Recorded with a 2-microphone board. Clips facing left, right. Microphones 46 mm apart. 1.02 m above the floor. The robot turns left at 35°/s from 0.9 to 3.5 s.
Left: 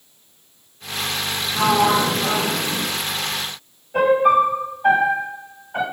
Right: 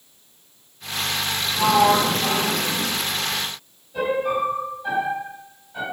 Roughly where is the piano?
Left.